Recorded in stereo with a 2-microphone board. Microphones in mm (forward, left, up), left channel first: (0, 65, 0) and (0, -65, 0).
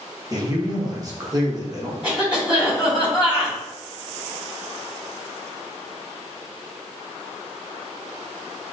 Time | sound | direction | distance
0.3 | a man speaking | 30° right (ahead or behind) | 0.9 m
2.0 | a cough | 10° right (ahead or behind) | 2.0 m